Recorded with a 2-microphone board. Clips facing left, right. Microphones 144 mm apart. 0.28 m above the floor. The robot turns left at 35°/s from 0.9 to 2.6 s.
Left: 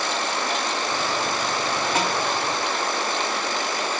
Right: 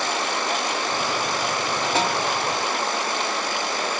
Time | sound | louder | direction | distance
1.9 | a snare drum | right 2 dB | 30° right (ahead or behind) | 1.1 m